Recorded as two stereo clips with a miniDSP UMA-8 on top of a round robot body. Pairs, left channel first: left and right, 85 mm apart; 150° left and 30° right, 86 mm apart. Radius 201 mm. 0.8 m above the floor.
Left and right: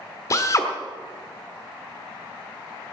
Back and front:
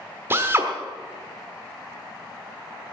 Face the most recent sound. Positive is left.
turn(degrees=35)